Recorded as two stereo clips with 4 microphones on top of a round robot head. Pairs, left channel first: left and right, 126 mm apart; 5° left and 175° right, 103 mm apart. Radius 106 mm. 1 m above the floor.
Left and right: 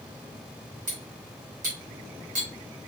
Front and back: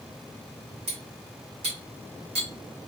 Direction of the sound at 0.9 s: 125° right.